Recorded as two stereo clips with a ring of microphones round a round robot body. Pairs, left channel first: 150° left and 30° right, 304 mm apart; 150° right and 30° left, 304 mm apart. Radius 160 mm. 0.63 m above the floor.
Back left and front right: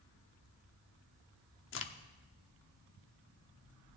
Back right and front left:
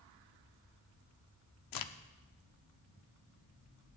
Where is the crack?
160° right, 0.8 m.